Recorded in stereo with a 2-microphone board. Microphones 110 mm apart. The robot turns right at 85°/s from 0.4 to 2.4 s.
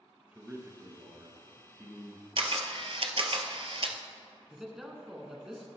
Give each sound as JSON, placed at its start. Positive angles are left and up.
{"t": 0.3, "sound": "a man speaking", "azimuth_deg": -165, "distance_m": 1.4}
{"t": 2.4, "sound": "a camera shutter", "side_deg": -55, "distance_m": 0.8}
{"t": 4.5, "sound": "a man speaking", "side_deg": -5, "distance_m": 1.3}